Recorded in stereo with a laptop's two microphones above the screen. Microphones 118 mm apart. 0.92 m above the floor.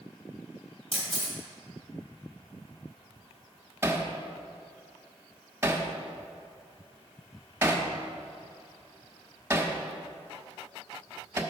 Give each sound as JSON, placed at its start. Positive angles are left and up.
{"t": 0.9, "sound": "a camera shutter", "side_deg": 60, "distance_m": 3.5}
{"t": 3.8, "sound": "hammering", "side_deg": -20, "distance_m": 1.3}